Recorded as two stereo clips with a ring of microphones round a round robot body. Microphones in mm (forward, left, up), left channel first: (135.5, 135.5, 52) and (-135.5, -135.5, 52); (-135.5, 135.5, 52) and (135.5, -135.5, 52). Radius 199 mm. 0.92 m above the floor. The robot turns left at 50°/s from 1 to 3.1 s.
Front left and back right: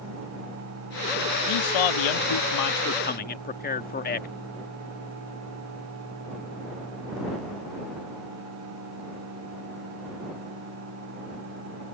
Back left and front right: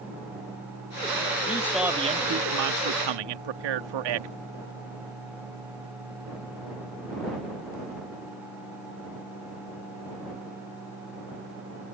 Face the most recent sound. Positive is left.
turn(degrees=-20)